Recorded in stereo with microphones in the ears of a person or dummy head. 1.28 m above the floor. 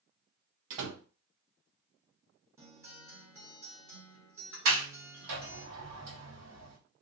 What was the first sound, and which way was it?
A door slam, 70° right (ahead or behind).